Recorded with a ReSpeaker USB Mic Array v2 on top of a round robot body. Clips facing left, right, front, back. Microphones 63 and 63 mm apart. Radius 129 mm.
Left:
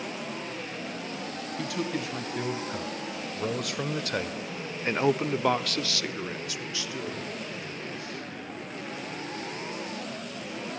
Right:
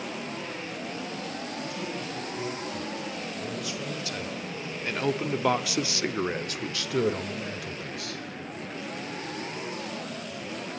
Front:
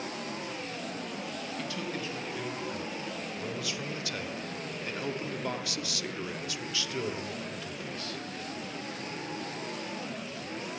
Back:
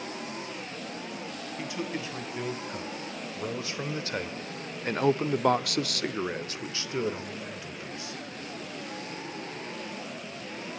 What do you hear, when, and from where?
1.6 s a man speaking: 110° left, 4 m; by 8.2 s 105° right, 2.5 m